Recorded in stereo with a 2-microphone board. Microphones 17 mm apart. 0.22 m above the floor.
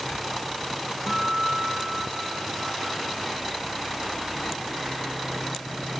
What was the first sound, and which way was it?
A guitar, 15° right (ahead or behind).